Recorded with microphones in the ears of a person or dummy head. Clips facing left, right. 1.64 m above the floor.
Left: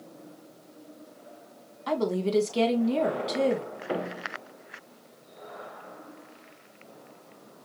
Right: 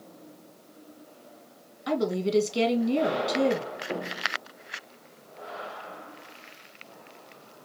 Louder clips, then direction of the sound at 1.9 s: Even; 15° right (ahead or behind).